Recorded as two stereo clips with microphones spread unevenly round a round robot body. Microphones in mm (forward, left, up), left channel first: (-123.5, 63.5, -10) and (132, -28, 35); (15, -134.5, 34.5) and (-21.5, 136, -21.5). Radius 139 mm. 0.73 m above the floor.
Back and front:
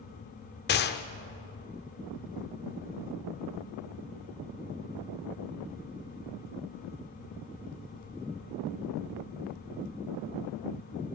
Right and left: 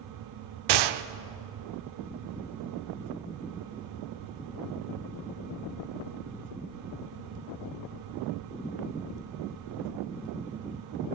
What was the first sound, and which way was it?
A gunshot, 100° left.